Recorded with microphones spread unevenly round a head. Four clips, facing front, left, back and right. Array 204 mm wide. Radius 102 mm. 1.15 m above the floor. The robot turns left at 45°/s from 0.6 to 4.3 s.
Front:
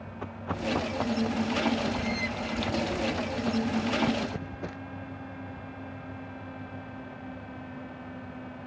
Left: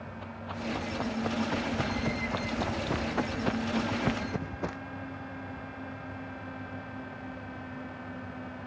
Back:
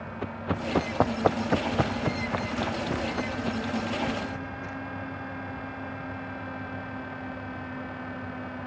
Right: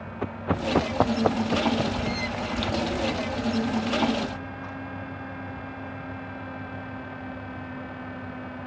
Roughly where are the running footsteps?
Right.